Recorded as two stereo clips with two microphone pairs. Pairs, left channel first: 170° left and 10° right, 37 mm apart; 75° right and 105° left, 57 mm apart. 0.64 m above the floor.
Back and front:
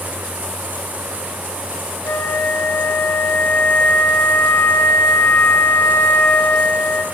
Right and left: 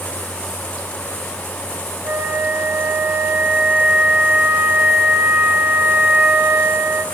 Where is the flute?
160° left, 1.9 m.